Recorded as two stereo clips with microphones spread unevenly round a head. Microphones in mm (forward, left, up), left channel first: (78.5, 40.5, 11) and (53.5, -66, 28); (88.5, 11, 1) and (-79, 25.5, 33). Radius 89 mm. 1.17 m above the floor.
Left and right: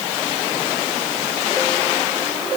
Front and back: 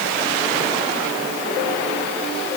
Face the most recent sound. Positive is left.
No sound to turn to.